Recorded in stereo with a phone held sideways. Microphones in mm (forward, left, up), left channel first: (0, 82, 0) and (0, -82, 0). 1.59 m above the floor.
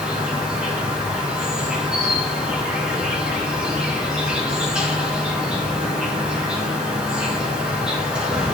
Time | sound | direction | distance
0.0 | an insect | 5° right (ahead or behind) | 2.5 m